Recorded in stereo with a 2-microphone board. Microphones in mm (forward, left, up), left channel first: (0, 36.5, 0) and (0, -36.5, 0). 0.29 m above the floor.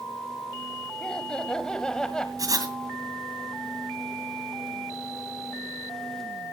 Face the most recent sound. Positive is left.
turn(degrees=-55)  # may be behind; listen again after turning